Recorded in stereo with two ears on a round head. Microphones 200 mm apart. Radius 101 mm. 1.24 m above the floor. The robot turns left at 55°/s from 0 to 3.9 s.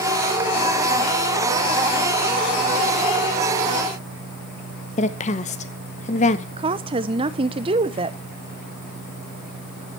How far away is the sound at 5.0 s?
About 1.0 m.